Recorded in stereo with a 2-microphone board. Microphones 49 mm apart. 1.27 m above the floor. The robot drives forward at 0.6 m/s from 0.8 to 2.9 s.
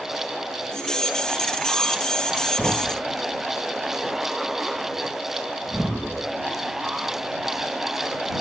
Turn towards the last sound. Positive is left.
turn(degrees=-20)  # may be behind; listen again after turning